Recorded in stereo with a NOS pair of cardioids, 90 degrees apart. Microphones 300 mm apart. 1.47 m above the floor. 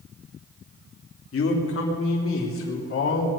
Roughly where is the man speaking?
Ahead left.